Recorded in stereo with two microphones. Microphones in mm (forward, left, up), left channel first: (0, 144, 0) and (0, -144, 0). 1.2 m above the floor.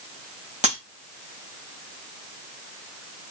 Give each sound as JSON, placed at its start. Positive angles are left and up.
{"t": 0.6, "sound": "breaking glass", "side_deg": -25, "distance_m": 5.5}